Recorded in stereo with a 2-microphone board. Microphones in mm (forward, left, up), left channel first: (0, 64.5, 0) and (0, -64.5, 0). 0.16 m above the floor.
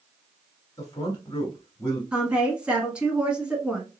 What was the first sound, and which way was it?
A man speaking, 30° left (ahead or behind).